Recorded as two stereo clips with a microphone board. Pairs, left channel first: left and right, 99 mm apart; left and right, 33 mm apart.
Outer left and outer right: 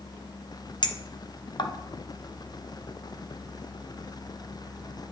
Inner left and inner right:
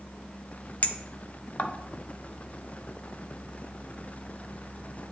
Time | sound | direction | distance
0.8 | a clink | 50° left (ahead or behind) | 0.7 m